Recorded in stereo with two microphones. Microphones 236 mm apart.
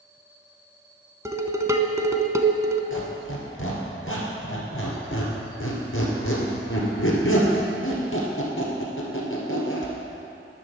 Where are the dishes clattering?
15° right (ahead or behind), 0.7 m.